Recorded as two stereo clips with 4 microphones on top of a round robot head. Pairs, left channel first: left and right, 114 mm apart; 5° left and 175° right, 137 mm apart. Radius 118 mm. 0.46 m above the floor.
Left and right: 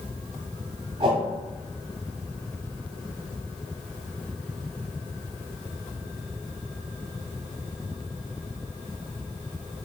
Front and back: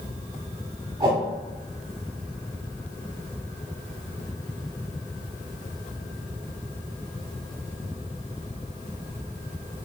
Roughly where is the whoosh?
Behind right.